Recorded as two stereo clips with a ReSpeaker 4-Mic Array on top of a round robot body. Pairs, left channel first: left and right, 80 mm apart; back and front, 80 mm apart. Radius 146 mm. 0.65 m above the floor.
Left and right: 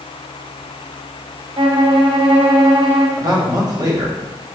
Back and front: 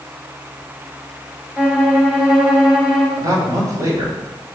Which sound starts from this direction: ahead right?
A man speaking, at 3.2 s.